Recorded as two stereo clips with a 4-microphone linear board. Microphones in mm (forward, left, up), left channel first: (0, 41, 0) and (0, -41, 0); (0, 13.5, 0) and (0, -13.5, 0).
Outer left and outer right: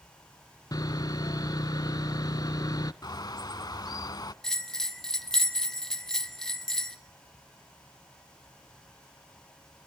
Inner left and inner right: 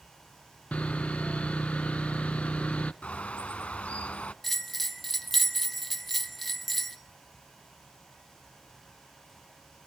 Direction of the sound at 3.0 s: 55° left (ahead or behind).